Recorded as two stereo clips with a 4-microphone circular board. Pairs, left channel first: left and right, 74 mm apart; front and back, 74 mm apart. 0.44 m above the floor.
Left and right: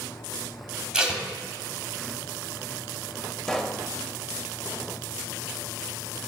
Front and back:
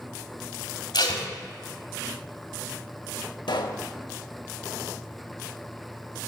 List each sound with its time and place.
0.9 s tape being pulled: 10° right, 1.0 m
3.5 s a pop: 5° left, 0.5 m